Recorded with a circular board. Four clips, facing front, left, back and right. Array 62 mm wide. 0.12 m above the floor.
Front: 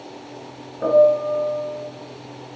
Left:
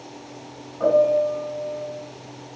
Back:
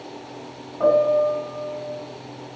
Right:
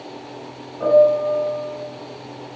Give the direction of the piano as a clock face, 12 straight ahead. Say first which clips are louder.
Right 4 dB, front 2 dB; 6 o'clock.